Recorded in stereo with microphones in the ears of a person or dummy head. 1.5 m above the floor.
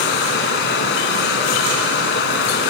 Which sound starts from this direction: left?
Running water, at 0.0 s.